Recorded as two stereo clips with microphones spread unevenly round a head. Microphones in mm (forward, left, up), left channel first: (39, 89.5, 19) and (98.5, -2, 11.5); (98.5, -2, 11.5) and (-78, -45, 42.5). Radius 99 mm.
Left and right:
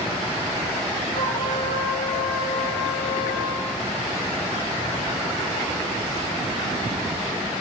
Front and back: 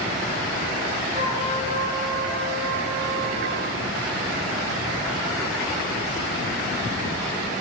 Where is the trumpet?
135° left, 4 m.